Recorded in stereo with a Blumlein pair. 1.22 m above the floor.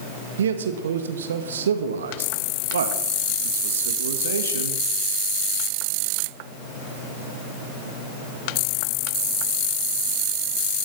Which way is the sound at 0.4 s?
65° right.